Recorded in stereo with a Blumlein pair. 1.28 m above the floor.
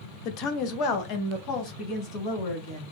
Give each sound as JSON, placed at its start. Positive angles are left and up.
{"t": 0.2, "sound": "a woman speaking", "azimuth_deg": 40, "distance_m": 0.5}